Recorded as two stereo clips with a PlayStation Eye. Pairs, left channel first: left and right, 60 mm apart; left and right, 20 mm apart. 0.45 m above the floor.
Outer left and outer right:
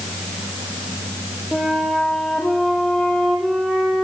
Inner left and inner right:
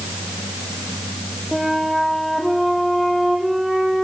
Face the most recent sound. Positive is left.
turn(degrees=5)  # may be behind; listen again after turning